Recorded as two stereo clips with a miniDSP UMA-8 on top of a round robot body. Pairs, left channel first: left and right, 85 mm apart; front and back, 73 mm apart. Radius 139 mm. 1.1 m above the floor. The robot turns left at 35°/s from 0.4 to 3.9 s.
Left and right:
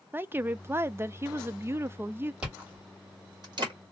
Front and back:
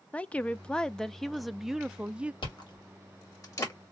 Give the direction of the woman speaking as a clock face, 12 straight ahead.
2 o'clock.